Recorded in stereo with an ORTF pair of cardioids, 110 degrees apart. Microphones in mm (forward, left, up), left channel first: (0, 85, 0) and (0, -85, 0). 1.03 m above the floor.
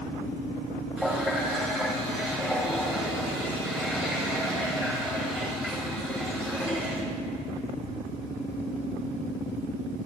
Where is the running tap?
5° right, 4 m.